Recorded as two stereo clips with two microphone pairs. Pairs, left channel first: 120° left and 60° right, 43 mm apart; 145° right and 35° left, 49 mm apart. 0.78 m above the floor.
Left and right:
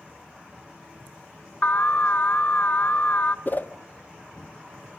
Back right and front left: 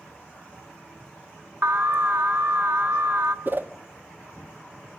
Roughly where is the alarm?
Left.